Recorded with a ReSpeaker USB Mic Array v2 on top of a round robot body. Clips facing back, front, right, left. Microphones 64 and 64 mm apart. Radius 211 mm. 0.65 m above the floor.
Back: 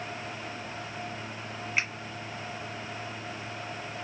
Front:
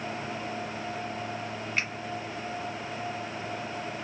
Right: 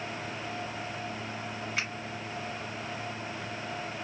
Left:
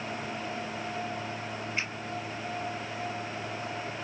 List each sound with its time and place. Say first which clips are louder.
1.8 s a finger snap: back 1 dB, even; 100° right, 1.4 m